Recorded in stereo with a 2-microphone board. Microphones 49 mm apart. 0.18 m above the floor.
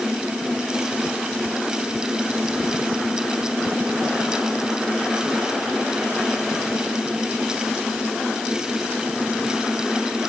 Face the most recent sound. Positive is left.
No sound to turn to.